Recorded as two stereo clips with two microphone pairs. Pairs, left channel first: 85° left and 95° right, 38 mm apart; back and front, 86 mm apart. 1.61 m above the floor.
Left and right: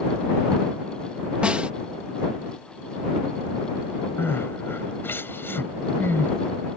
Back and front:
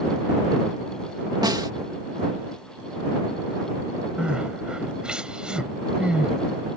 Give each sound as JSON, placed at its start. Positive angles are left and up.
{"t": 1.4, "sound": "a snare drum", "azimuth_deg": -35}
{"t": 4.2, "sound": "crying", "azimuth_deg": 80}